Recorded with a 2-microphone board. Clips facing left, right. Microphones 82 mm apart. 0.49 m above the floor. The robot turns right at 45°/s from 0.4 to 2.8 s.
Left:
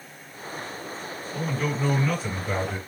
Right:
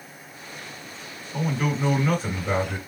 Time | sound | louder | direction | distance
1.3 | a man speaking | right 2 dB | 175° left | 2.5 m